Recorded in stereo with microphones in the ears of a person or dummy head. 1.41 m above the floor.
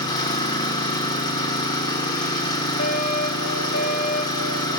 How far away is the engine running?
About 1.6 m.